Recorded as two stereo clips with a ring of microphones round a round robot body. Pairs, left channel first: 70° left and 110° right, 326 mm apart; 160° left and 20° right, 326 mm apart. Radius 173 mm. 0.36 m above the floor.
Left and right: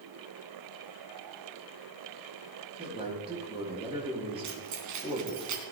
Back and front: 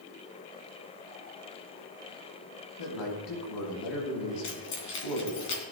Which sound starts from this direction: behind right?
Keys jangling, at 4.4 s.